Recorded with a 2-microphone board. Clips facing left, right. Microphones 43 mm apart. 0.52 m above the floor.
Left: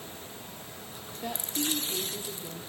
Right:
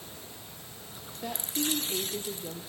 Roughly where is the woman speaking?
Centre.